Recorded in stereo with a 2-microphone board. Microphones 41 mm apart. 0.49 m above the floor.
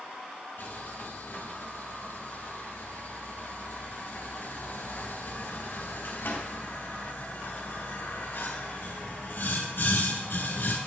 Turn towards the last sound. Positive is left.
turn(degrees=65)  # may be behind; listen again after turning